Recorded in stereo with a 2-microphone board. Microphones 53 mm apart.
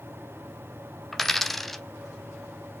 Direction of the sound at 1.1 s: 5° left (ahead or behind).